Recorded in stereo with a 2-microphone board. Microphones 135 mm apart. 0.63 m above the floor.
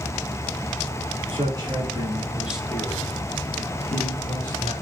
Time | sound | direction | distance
1.3 | a man speaking | 45° right (ahead or behind) | 2 m